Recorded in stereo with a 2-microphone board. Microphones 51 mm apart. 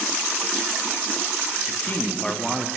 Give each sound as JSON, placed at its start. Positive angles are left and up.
{"t": 1.7, "sound": "a man speaking", "side_deg": 40, "distance_m": 1.6}